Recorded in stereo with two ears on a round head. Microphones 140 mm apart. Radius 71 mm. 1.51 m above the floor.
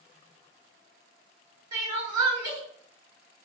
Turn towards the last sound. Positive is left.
turn(degrees=-25)  # may be behind; listen again after turning